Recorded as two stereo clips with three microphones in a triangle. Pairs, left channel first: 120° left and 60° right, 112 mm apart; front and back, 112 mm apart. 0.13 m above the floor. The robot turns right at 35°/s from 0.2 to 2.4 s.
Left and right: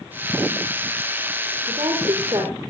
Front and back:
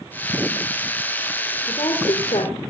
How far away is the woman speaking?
About 5.5 m.